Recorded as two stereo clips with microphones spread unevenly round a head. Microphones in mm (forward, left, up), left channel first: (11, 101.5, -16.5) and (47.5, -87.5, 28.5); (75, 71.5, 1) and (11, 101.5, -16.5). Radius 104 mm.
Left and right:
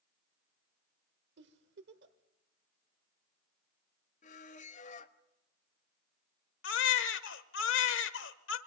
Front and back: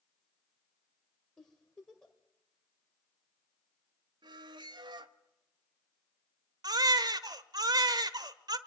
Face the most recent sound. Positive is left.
turn(degrees=135)